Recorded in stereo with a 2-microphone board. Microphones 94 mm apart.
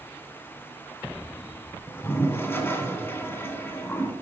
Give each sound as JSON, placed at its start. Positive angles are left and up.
{"t": 1.9, "sound": "a toilet flushing", "side_deg": 20, "distance_m": 0.5}